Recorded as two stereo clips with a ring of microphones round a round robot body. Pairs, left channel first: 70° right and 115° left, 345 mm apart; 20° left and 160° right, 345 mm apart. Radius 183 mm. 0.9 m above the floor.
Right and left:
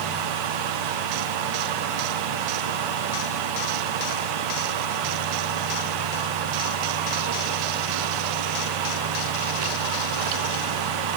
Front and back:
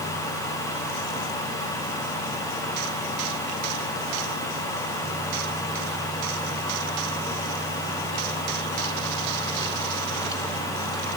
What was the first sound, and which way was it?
Only background noise.